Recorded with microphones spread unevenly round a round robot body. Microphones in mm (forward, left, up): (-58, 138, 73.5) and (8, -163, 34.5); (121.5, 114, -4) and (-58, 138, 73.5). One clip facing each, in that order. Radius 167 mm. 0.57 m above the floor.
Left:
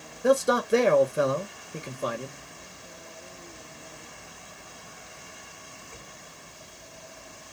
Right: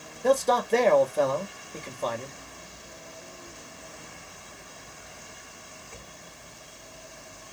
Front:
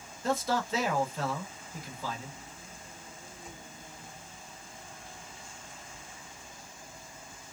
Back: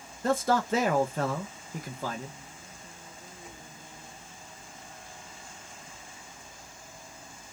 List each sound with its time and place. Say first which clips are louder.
0.2 s a man speaking: left 1 dB, back 4 dB; straight behind, 1.1 m